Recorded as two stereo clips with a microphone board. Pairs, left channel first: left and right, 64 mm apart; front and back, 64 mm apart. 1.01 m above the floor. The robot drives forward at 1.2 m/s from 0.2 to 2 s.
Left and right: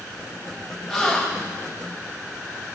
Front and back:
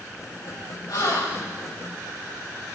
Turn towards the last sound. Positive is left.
turn(degrees=10)